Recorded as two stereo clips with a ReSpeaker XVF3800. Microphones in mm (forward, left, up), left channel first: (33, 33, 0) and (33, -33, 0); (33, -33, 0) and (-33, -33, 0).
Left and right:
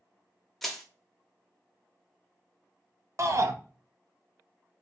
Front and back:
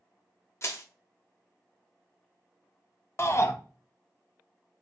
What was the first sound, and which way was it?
Crushing, 5° left.